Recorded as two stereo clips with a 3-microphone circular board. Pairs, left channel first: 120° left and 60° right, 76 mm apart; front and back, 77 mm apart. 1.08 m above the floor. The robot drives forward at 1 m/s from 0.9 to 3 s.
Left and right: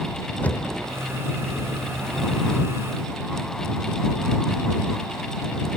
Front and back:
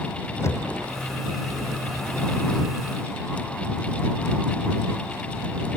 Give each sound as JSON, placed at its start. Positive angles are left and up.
{"t": 0.4, "sound": "knocking", "azimuth_deg": 50}